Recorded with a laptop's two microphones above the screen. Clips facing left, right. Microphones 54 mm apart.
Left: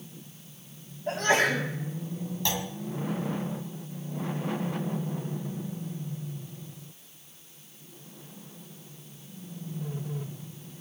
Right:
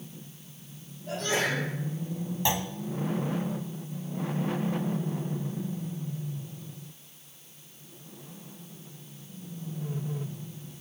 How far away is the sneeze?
About 7 m.